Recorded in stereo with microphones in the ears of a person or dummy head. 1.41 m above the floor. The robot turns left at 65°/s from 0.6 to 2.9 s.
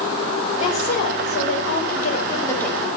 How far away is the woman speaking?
About 5.5 m.